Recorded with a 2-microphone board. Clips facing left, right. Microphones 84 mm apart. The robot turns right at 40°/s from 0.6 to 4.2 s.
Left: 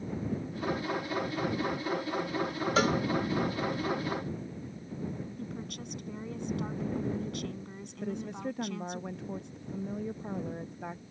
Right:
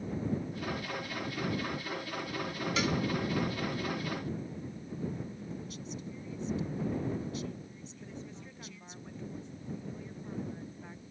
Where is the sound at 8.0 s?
65° left (ahead or behind).